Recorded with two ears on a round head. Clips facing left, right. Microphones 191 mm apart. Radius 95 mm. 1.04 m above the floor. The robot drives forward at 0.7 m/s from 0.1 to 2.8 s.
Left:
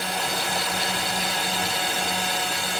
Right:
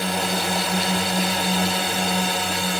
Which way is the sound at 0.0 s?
65° right (ahead or behind).